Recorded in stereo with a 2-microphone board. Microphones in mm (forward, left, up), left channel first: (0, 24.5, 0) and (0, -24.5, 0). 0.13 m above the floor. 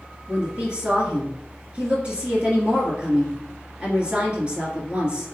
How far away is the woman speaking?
About 1.7 m.